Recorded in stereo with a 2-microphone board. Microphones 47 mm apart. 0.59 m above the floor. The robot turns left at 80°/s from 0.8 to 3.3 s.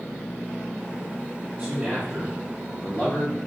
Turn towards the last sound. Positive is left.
turn(degrees=105)